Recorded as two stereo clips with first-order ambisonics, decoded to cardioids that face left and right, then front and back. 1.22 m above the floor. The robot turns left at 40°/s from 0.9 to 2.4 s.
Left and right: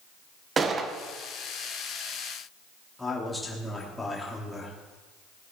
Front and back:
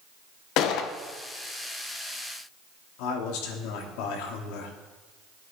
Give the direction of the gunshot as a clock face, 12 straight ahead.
1 o'clock.